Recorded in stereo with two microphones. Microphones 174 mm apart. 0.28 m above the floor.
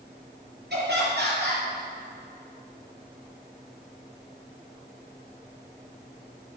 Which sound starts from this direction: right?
Laughter, at 0.7 s.